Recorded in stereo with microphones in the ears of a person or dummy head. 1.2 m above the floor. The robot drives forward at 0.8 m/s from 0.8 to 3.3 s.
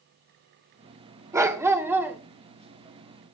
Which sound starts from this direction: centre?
A dog barking, at 1.3 s.